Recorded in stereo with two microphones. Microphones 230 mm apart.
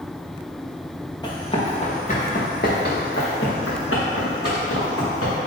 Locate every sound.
1.2 s running footsteps: 15° left (ahead or behind), 1.4 m; by 5.3 s 80° left, 2.5 m